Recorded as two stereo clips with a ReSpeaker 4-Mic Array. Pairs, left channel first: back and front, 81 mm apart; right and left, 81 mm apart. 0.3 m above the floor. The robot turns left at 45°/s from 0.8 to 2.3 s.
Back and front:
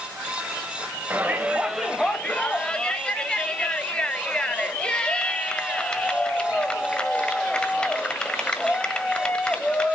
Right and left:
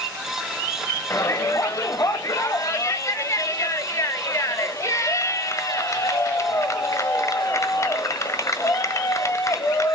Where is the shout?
55° right, 1.3 m; by 9.9 s 110° right, 1.3 m.